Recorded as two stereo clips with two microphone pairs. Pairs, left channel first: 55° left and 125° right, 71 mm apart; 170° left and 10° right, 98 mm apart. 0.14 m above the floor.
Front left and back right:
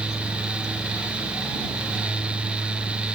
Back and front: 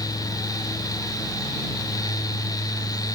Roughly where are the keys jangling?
I don't hear keys jangling.